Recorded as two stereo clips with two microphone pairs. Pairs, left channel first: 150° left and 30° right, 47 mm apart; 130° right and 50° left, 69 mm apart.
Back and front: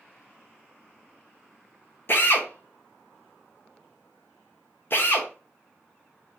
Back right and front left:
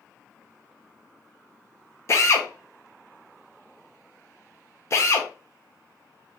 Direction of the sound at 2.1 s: Straight behind.